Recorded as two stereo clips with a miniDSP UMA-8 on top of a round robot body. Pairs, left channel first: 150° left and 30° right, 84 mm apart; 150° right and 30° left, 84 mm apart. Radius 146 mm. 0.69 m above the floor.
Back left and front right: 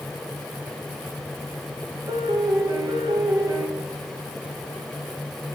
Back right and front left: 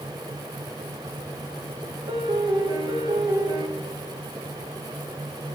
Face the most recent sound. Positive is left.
turn(degrees=10)